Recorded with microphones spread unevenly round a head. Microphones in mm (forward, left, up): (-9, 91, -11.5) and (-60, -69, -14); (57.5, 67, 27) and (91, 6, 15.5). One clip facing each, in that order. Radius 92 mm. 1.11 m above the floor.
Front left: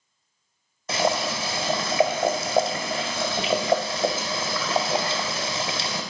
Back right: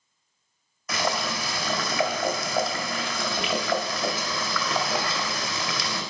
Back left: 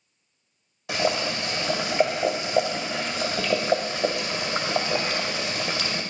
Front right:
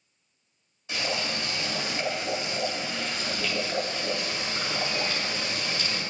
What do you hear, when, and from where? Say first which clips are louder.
0.9 s boiling: front left 4 dB, back left 6 dB; 135° left, 1.8 m